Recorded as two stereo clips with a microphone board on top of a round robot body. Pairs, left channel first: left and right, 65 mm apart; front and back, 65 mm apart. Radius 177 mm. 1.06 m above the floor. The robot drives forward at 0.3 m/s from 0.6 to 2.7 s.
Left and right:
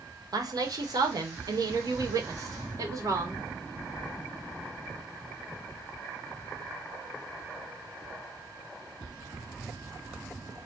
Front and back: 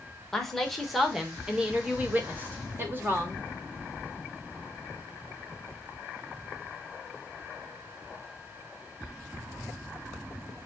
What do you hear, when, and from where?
0.3 s a woman speaking: 85° right, 1.1 m; by 3.4 s 120° right, 1.2 m